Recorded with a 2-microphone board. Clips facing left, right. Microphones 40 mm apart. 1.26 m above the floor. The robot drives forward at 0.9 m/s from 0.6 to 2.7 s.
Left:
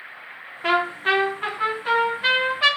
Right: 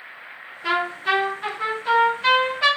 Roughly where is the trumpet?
Left.